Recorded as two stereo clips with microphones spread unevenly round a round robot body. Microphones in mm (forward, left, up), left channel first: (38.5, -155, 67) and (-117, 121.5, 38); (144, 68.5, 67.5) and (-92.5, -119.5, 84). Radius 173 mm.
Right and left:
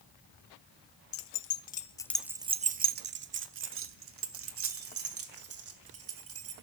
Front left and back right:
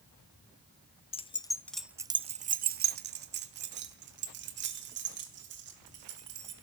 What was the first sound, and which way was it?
Keys jangling, 25° right.